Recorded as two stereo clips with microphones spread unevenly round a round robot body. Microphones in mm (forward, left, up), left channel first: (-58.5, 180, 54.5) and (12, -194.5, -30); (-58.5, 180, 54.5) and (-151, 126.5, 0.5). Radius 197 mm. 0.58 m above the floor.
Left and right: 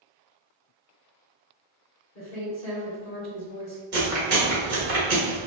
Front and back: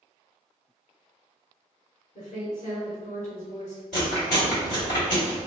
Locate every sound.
2.1 s a woman speaking: 40° left, 2.0 m
3.9 s chewing: 25° right, 1.7 m